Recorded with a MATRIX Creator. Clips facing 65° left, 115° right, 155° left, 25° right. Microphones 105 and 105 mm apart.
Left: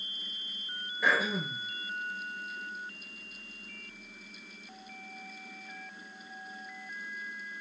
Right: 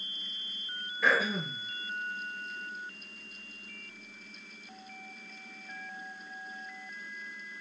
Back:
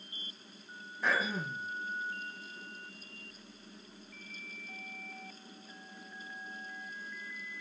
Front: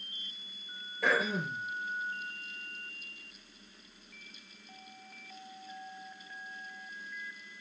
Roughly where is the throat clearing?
Ahead.